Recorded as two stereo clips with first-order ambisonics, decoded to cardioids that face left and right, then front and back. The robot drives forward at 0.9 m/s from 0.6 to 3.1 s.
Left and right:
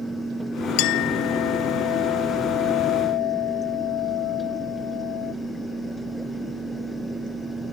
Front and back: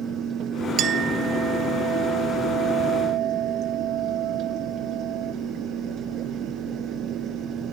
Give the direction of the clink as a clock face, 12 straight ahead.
8 o'clock.